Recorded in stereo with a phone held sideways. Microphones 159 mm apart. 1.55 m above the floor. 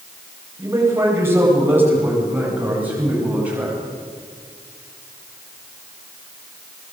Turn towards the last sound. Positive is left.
turn(degrees=-10)  # may be behind; listen again after turning